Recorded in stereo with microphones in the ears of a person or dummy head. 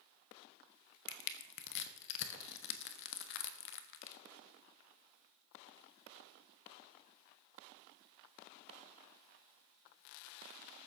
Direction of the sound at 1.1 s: 70° left (ahead or behind).